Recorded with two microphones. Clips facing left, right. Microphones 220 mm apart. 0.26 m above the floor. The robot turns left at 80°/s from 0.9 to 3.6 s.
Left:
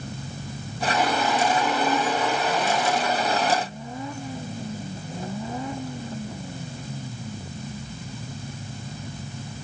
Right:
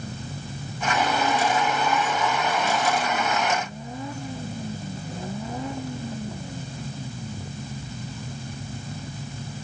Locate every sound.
Only background noise.